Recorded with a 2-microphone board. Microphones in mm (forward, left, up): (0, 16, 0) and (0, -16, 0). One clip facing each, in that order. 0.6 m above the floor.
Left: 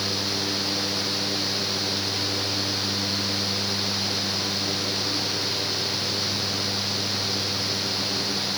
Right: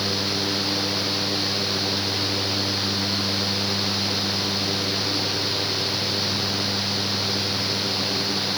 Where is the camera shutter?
No camera shutter in this recording.